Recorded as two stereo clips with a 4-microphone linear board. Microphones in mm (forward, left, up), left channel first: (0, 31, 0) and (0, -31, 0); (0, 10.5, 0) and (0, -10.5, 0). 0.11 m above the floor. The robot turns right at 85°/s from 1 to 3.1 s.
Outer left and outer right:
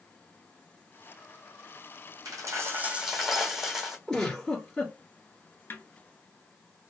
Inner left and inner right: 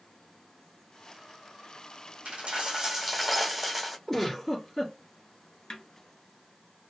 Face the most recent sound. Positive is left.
turn(degrees=35)  # may be behind; listen again after turning